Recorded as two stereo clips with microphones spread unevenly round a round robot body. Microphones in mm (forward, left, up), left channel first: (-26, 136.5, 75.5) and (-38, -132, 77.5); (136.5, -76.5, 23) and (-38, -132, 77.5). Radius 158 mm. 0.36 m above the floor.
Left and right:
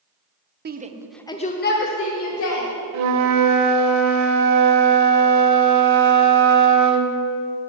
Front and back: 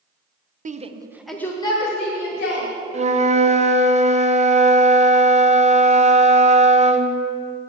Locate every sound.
0.7 s a shout: 110° right, 0.9 m; by 2.7 s 55° left, 2 m
2.9 s a flute: 100° right, 1.1 m